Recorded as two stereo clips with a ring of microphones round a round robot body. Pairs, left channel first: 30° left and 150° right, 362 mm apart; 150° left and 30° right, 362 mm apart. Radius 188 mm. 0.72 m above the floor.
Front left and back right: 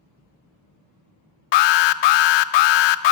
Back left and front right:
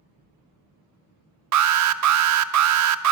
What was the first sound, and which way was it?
An alarm, 15° left.